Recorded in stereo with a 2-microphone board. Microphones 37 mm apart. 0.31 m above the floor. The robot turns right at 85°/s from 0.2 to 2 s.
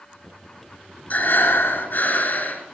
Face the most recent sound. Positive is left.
turn(degrees=115)